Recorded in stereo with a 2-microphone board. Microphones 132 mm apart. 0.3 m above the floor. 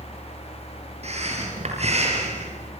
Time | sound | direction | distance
1.0 | breathing | 55° right (ahead or behind) | 8 m